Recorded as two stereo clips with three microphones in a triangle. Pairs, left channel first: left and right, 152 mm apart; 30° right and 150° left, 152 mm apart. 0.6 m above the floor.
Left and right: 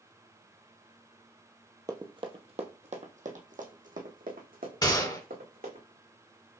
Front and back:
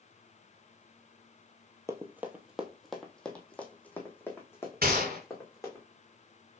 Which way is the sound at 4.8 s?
150° left.